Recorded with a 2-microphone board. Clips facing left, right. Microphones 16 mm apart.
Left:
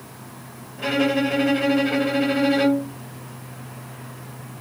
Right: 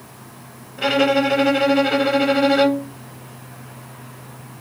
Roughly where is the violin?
Right.